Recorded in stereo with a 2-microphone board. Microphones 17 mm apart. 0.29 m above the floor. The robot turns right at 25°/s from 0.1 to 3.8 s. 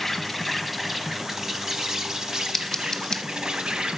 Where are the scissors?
30° left (ahead or behind), 1.0 m; by 3.2 s 40° left (ahead or behind), 1.0 m.